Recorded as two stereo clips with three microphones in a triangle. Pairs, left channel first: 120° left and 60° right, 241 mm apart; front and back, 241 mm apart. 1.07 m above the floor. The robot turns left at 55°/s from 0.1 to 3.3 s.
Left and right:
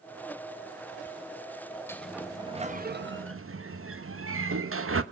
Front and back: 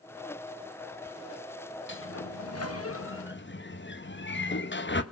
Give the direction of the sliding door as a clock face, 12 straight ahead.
11 o'clock.